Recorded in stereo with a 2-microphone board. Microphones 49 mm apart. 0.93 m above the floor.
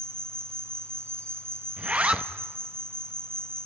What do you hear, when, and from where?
0.0 s an insect: 60° right (ahead or behind), 1.5 m
1.8 s a zipper: 25° right (ahead or behind), 0.7 m